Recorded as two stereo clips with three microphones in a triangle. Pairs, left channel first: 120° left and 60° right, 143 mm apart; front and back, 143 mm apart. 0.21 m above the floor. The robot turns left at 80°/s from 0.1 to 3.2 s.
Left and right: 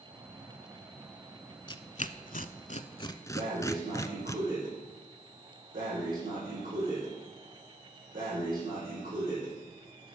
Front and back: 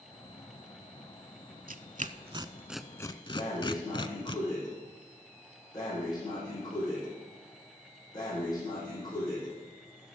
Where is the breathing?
65° right, 6 m.